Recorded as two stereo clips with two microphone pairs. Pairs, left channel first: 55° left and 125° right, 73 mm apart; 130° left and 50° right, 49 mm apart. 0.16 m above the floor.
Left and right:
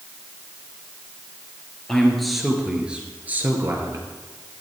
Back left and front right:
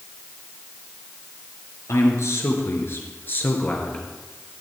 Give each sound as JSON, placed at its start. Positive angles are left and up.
{"t": 1.9, "sound": "a man speaking", "azimuth_deg": 140, "distance_m": 3.0}